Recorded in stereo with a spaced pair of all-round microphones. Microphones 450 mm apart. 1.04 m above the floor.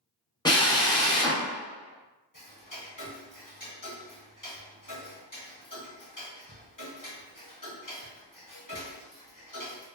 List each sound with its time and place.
0.5 s a drill: 10° left (ahead or behind), 0.7 m
2.3 s ticking: 45° left (ahead or behind), 1.1 m